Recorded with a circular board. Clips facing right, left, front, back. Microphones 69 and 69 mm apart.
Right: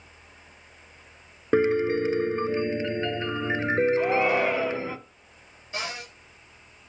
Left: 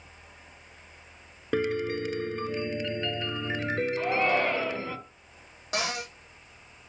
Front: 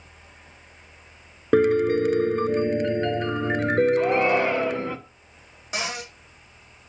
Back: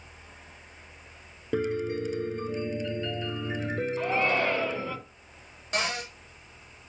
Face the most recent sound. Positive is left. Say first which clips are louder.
# left 3 dB, even
turn(degrees=85)